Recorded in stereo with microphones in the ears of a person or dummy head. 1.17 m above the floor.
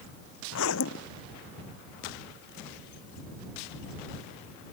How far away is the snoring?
I don't hear snoring.